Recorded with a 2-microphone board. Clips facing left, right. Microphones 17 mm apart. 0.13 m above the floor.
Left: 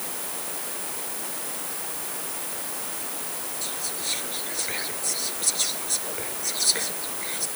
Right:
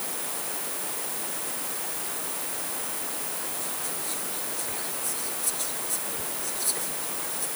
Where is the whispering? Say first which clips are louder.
Left 3 dB; 50° left (ahead or behind).